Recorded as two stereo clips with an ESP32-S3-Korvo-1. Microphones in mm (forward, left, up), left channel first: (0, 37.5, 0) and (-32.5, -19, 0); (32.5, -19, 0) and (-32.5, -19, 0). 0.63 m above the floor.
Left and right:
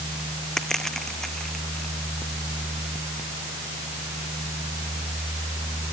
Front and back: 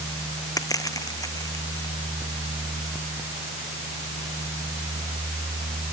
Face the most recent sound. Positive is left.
turn(degrees=-20)